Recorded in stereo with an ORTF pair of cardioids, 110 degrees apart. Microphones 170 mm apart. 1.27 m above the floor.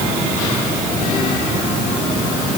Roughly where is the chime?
I don't hear a chime.